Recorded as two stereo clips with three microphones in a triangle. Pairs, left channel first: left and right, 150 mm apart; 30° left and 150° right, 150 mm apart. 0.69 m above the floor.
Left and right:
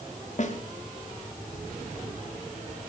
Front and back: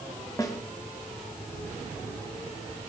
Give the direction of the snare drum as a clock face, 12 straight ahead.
9 o'clock.